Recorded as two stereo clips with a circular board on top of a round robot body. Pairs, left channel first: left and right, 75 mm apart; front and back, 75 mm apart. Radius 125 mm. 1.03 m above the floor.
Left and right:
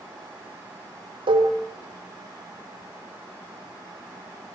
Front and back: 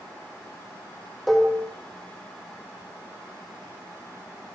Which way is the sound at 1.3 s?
90° right.